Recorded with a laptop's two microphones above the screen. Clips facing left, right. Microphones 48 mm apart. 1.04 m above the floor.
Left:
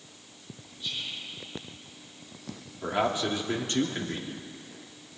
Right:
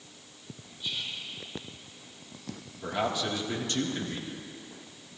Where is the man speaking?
40° left (ahead or behind), 2 m.